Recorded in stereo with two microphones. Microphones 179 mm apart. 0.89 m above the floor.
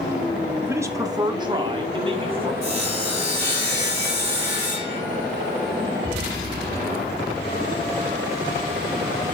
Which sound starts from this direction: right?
Sawing, at 2.6 s.